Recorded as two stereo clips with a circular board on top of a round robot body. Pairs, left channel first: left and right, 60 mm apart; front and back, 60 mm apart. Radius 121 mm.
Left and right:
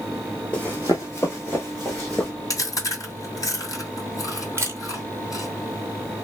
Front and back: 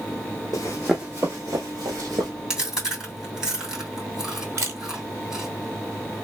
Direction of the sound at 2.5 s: 105° left.